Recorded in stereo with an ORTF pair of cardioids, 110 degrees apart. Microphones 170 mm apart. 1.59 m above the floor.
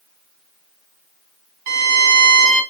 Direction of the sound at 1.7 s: 55° right.